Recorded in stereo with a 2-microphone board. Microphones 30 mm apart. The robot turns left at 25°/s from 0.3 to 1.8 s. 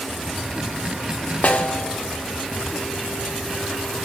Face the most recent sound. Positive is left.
turn(degrees=50)  # may be behind; listen again after turning